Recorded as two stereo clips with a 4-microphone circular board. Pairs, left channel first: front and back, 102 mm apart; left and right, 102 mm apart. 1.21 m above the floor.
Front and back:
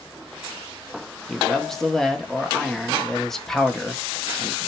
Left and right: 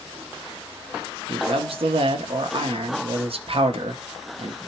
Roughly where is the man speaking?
Right.